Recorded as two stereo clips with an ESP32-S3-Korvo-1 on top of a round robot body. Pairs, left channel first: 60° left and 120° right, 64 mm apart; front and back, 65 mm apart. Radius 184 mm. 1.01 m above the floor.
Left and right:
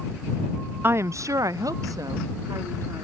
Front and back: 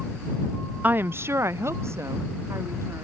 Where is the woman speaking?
140° right.